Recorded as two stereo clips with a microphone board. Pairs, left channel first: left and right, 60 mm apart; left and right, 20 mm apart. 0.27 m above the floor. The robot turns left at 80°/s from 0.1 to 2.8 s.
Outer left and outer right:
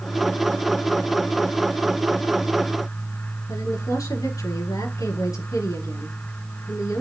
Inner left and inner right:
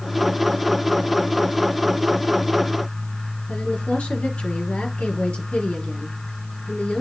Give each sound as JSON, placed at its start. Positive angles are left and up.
{"t": 3.5, "sound": "a woman speaking", "side_deg": 75, "distance_m": 5.0}